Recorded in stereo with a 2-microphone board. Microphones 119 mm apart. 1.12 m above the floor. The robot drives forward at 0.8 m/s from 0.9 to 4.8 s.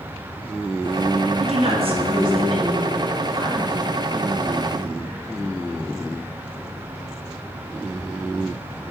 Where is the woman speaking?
60° right (ahead or behind), 1.5 m; by 3.9 s 25° right (ahead or behind), 3 m.